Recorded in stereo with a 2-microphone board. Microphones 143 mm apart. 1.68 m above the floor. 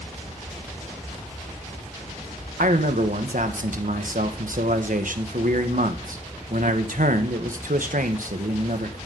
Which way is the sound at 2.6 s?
75° right (ahead or behind).